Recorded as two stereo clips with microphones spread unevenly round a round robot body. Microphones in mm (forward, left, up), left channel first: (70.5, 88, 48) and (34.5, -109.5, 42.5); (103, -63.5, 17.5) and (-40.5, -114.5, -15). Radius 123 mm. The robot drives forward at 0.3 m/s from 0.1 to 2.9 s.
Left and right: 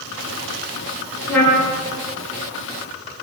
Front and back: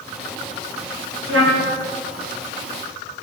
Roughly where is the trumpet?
Behind.